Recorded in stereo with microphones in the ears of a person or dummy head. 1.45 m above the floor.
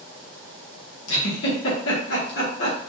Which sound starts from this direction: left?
A giggle, at 1.1 s.